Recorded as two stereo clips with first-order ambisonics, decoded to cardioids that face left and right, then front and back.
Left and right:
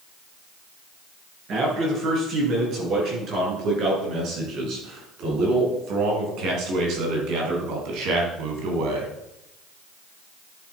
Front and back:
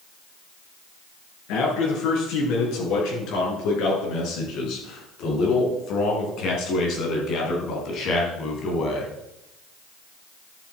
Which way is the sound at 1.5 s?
35° right.